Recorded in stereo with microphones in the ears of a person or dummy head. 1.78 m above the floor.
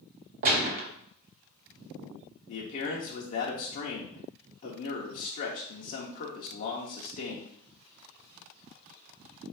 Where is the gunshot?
45° right (ahead or behind), 0.7 m.